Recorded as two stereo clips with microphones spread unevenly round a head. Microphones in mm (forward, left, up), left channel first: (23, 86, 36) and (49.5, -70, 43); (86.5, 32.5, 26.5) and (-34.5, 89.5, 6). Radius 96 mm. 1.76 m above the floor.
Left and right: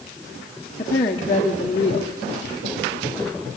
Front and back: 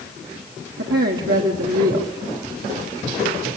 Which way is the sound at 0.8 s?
165° left.